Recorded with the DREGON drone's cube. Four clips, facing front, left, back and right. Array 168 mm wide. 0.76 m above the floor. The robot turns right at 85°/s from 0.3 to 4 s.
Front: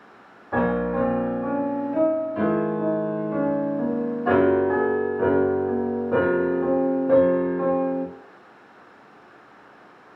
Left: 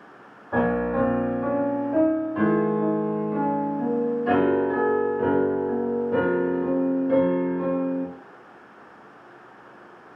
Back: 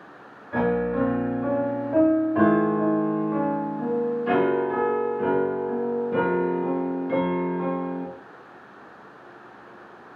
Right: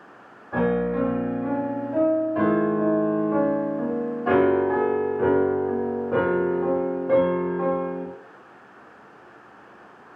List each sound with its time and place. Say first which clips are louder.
0.5 s a piano: even, front 1 dB; 35° left, 0.6 m; by 8.1 s 30° right, 0.6 m